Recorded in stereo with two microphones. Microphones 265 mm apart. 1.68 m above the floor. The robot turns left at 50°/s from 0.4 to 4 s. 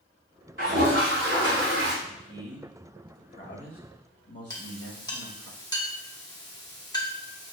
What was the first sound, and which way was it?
A toilet flushing, 55° right.